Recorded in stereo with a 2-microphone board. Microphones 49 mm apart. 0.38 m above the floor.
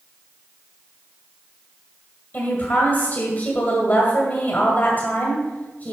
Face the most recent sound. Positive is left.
turn(degrees=40)  # may be behind; listen again after turning